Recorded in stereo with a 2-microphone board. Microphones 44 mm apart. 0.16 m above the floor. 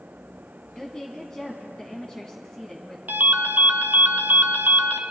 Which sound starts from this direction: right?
A ringtone, at 3.1 s.